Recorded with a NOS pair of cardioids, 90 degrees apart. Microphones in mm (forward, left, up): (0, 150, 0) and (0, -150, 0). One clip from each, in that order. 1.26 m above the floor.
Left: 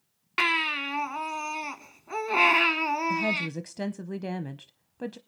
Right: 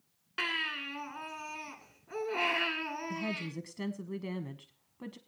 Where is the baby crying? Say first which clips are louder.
Left 8 dB; 65° left, 1.6 m.